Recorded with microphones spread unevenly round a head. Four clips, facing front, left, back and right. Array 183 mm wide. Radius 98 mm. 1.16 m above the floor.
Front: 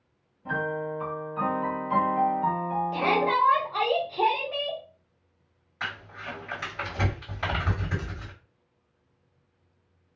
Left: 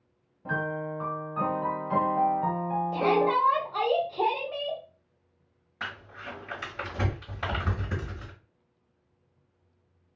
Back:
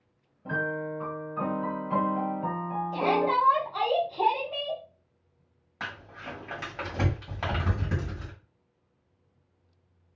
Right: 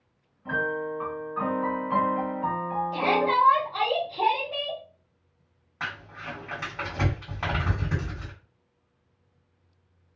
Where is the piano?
105° left, 1.3 m.